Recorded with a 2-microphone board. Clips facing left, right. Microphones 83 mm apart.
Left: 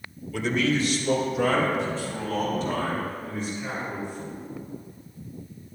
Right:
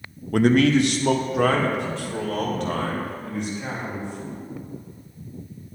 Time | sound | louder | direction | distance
0.3 | a man speaking | right 8 dB | 55° right (ahead or behind) | 0.7 m